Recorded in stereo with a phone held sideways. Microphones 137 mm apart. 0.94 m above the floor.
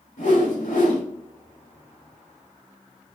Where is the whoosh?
75° left (ahead or behind), 4.5 m.